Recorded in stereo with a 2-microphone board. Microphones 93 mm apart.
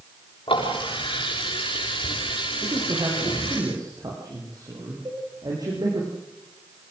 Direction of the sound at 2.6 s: 45° right (ahead or behind).